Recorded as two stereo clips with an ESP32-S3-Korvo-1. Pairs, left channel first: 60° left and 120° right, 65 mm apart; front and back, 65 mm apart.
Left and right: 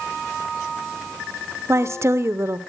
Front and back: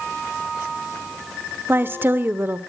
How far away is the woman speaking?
About 1.0 m.